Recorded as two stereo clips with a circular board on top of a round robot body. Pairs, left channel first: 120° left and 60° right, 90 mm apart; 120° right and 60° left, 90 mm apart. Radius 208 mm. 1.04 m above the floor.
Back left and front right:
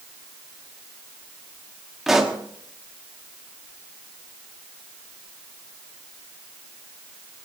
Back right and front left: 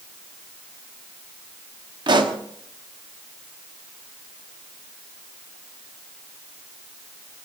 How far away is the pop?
About 1.3 m.